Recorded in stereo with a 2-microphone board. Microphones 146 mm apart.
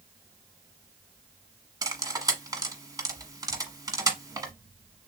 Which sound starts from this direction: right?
Cutlery clinking, at 1.8 s.